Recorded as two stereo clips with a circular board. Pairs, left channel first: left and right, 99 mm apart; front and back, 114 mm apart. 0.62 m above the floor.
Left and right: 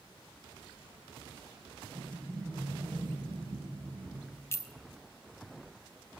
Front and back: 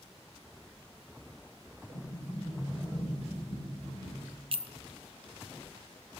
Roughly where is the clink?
Behind left.